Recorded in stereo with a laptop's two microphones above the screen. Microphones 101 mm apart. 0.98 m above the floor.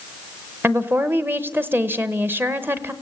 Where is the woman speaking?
20° right (ahead or behind), 0.8 m.